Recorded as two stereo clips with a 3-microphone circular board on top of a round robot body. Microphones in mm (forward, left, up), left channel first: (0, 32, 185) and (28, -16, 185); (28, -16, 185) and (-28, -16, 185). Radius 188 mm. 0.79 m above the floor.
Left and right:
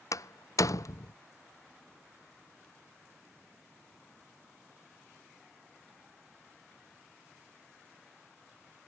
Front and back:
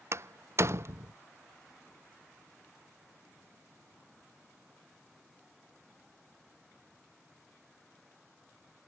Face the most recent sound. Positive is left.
turn(degrees=140)